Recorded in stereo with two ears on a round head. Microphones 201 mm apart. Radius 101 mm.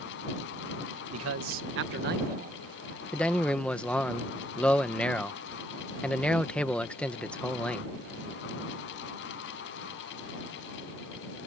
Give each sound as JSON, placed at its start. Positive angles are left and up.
{"t": 1.1, "sound": "a man speaking", "side_deg": -75}
{"t": 3.1, "sound": "a man speaking", "side_deg": 5}